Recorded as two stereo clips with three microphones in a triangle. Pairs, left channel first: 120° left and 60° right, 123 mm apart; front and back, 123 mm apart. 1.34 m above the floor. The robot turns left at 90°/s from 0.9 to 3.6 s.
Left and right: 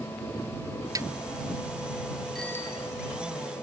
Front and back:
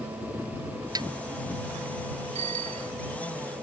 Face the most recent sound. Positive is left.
turn(degrees=95)